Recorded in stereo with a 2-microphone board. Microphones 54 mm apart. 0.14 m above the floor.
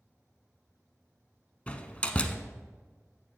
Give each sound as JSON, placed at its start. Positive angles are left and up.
{"t": 1.7, "sound": "a door slam", "side_deg": 25, "distance_m": 0.8}